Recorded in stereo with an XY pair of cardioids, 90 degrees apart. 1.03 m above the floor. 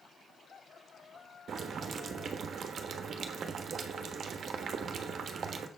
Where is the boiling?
65° right, 1.3 m.